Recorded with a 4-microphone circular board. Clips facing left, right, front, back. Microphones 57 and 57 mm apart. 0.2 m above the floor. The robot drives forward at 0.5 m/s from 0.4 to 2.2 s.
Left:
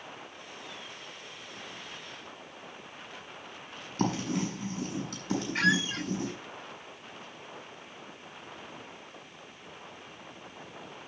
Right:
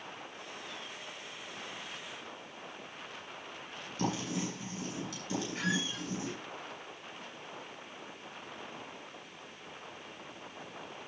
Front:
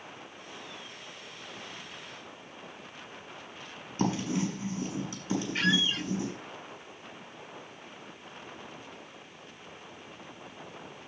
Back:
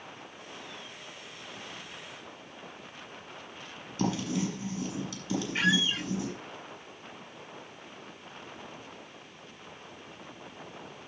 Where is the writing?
55° left, 7 m.